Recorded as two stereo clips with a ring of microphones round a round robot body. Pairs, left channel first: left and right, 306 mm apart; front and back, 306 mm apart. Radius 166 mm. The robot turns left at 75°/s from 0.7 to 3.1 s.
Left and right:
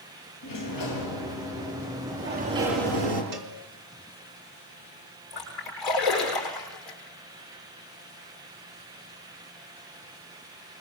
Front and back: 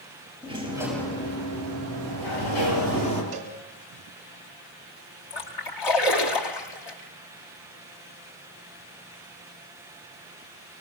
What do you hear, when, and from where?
0.4 s a sliding door: 105° left, 5.5 m; by 3.2 s 75° right, 5.5 m
3.3 s a cowbell: 110° right, 5 m
5.3 s a splash: straight ahead, 6.5 m